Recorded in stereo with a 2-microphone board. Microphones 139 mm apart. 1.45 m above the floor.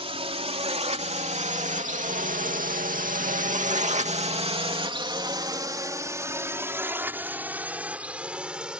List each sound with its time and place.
0.0 s a drone: 45° right (ahead or behind); by 8.8 s 5° right (ahead or behind)